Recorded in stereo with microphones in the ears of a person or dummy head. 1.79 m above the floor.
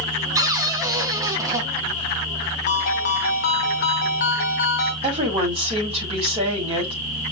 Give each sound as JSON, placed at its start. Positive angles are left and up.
{"t": 0.3, "sound": "a cupboard door", "side_deg": -15, "distance_m": 1.2}
{"t": 2.7, "sound": "a ringtone", "side_deg": 40, "distance_m": 1.0}
{"t": 5.0, "sound": "a woman speaking", "side_deg": -30, "distance_m": 4.5}